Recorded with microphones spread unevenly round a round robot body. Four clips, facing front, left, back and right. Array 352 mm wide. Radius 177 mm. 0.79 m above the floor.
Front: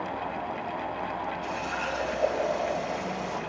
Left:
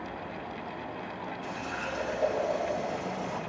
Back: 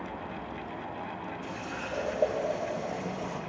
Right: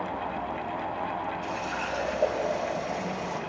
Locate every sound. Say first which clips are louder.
1.4 s a running tap: right 4 dB, front 6 dB; 175° right, 2.5 m